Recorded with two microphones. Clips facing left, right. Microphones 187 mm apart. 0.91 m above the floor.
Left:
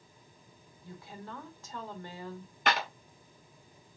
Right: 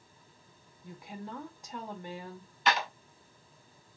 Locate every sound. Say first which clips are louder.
0.8 s a woman speaking: right 3 dB; 15° right (ahead or behind), 1.3 m
2.7 s a clap: right 1 dB; 55° left (ahead or behind), 1.3 m